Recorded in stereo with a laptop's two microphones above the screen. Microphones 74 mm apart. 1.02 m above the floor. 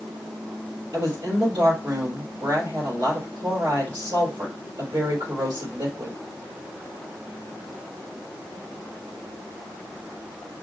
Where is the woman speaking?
65° right (ahead or behind), 3 m.